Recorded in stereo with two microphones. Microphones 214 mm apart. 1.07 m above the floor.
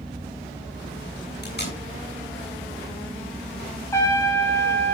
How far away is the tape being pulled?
About 8 m.